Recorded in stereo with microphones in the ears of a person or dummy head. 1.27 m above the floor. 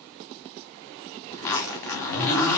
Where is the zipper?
10° left (ahead or behind), 1.0 m.